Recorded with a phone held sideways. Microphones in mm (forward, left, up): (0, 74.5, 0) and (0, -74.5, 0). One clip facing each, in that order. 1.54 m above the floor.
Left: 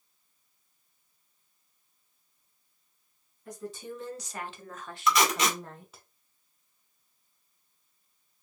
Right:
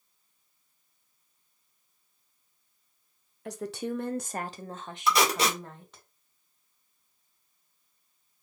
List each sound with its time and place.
3.5 s a woman speaking: 85° right, 0.8 m; by 6.0 s 5° left (ahead or behind), 1.2 m
5.1 s tape being pulled: 35° right (ahead or behind), 2 m